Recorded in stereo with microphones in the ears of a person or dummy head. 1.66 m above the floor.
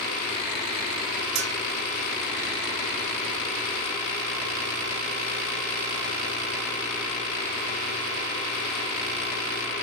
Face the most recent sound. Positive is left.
turn(degrees=-65)  # may be behind; listen again after turning